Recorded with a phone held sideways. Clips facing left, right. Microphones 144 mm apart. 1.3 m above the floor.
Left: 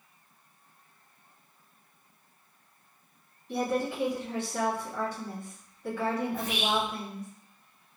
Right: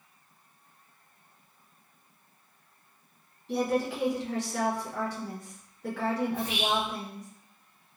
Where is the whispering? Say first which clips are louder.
Even; 25° right (ahead or behind), 1.5 m.